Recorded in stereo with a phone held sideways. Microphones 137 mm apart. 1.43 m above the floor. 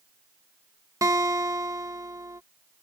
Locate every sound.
1.0 s a guitar: 25° right (ahead or behind)